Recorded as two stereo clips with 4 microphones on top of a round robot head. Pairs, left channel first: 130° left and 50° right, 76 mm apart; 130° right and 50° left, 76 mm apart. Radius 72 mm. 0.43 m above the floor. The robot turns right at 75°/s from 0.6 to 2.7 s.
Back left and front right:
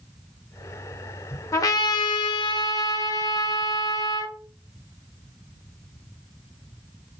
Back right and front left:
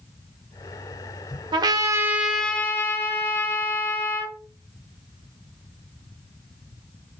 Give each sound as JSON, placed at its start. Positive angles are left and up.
{"t": 1.5, "sound": "a trumpet", "azimuth_deg": 75, "distance_m": 0.5}